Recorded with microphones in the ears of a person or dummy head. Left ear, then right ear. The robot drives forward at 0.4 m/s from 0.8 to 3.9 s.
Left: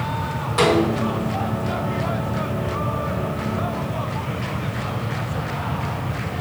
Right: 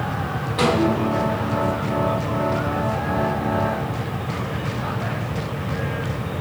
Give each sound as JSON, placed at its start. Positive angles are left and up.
{"t": 0.6, "sound": "a snare drum", "side_deg": 55, "distance_m": 3.0}